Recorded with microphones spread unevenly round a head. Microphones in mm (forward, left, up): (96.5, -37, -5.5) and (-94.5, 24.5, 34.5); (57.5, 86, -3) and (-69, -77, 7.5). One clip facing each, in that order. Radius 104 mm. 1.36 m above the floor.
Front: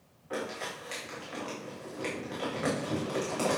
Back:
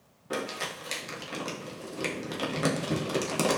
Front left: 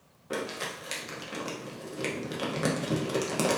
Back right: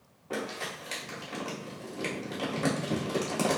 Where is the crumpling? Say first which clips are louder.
Back 2 dB, front left 1 dB; 125° left, 0.9 m.